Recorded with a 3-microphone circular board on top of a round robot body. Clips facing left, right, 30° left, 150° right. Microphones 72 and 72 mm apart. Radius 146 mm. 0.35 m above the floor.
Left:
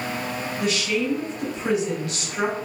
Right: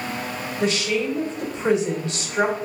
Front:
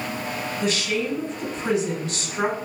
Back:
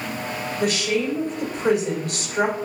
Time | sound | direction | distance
0.6 | a woman speaking | 145° right | 1.6 m